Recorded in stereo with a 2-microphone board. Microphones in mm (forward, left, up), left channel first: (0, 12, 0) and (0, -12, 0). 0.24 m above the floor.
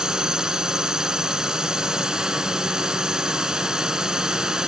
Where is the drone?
25° right (ahead or behind).